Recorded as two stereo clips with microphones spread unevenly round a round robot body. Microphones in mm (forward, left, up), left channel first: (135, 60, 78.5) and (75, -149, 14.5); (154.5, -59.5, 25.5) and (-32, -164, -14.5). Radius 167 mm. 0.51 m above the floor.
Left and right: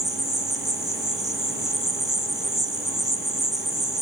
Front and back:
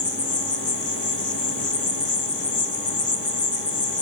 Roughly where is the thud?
I don't hear a thud.